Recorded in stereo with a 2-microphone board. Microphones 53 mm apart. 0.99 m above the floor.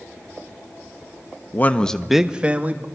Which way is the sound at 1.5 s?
35° left (ahead or behind).